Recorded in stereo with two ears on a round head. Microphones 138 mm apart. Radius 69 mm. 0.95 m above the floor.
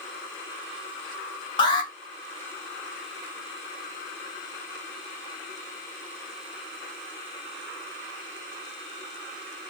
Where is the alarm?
30° left (ahead or behind), 1.0 m.